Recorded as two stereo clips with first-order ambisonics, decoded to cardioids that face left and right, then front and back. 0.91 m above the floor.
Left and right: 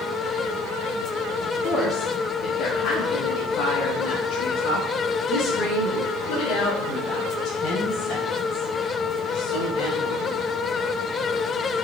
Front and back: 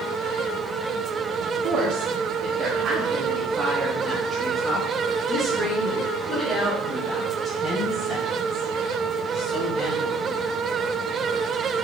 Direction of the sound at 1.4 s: 150° left.